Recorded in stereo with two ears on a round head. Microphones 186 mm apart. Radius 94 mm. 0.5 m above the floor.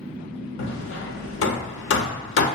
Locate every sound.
0.6 s hammering: 60° left (ahead or behind), 0.5 m